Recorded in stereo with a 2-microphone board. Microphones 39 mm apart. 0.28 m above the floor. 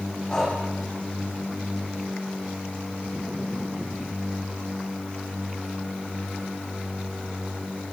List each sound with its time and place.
0.3 s breathing: 15° left (ahead or behind), 7.5 m